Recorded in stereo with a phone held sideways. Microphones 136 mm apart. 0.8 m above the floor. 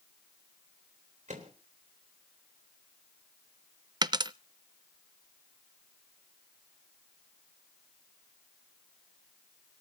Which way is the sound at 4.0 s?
30° right (ahead or behind).